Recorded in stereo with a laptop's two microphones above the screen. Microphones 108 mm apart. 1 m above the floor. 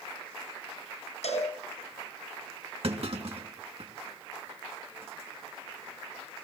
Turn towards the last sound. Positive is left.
turn(degrees=-65)  # may be behind; listen again after turning